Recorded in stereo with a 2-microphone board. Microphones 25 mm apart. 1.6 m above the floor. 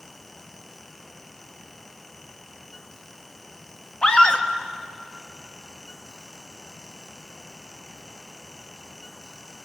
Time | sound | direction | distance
4.0 | a scream | 40° left (ahead or behind) | 2 m